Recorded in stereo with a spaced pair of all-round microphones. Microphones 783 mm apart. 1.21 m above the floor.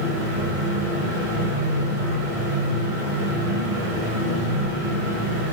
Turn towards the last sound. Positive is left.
turn(degrees=-45)  # may be behind; listen again after turning